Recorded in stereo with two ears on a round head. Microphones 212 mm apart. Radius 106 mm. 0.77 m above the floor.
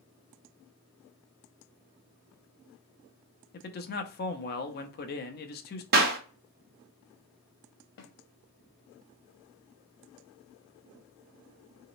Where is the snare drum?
50° left (ahead or behind), 0.9 m.